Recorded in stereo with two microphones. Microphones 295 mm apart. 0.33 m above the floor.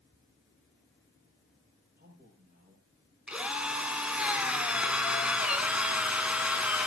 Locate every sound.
2.0 s a man speaking: 35° right (ahead or behind), 7.5 m
3.3 s a drill: 5° right (ahead or behind), 1.8 m